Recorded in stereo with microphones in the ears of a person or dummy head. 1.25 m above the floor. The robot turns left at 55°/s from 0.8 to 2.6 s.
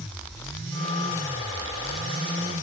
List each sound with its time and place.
Only background noise.